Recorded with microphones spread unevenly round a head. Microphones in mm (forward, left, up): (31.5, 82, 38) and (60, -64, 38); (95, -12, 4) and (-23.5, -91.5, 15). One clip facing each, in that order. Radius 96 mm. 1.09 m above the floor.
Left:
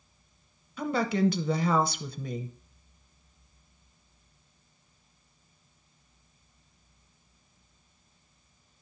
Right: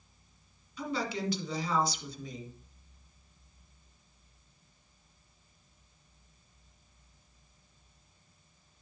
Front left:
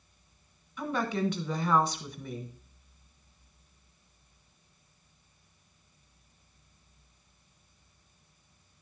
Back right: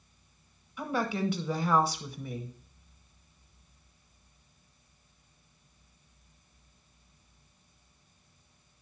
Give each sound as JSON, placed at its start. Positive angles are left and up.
{"t": 0.8, "sound": "a woman speaking", "azimuth_deg": 125, "distance_m": 1.1}